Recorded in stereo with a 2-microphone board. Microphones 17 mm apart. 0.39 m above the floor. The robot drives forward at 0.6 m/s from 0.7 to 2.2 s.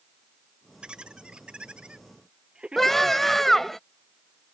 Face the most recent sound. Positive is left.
turn(degrees=20)  # may be behind; listen again after turning